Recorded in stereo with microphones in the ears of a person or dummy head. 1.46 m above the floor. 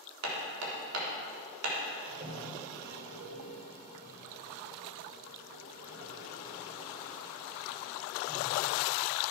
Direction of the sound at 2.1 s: 45° right (ahead or behind).